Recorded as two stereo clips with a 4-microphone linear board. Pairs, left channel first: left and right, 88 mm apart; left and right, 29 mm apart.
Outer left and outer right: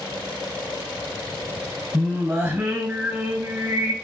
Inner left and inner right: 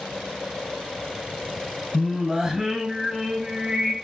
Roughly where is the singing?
Right.